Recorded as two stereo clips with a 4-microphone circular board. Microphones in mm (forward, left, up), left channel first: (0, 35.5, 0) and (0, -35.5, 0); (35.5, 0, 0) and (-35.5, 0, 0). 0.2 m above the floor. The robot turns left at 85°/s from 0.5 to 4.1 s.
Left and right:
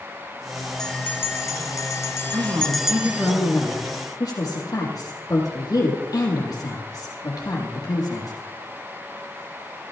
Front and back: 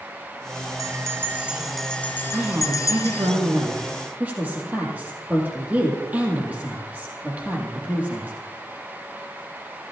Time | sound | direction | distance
0.8 | a bell | 170° left | 0.7 m
2.3 | a woman speaking | 95° right | 6.5 m